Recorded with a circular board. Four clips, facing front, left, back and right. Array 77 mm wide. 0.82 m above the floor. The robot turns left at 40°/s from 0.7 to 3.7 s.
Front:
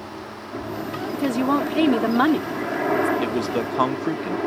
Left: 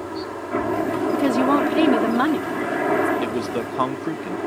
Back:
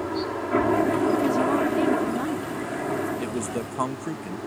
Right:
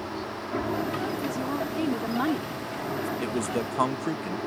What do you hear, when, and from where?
0.0 s a helicopter: 145° left; by 4.5 s 25° left
1.1 s a woman speaking: 70° left; by 3.1 s 10° right
3.2 s a man speaking: 40° left; by 4.4 s 20° left